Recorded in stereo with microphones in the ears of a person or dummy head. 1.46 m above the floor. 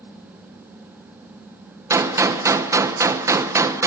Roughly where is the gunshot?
Centre.